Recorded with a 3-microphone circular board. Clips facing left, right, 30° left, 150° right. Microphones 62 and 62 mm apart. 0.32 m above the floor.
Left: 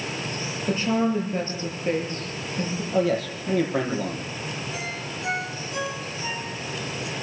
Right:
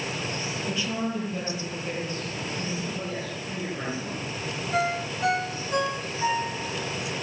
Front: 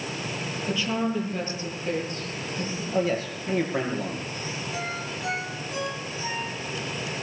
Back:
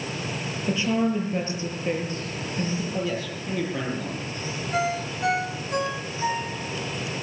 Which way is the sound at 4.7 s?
125° right.